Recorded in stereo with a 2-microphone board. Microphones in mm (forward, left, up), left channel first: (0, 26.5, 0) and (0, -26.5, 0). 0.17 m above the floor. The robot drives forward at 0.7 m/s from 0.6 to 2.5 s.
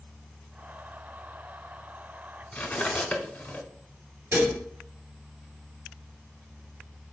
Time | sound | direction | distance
2.5 | cutlery clinking | 30° left (ahead or behind) | 0.8 m
4.3 | dishes clattering | 40° right (ahead or behind) | 1.8 m